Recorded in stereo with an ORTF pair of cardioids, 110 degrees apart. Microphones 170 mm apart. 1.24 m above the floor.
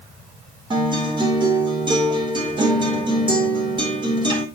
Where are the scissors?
No scissors in this recording.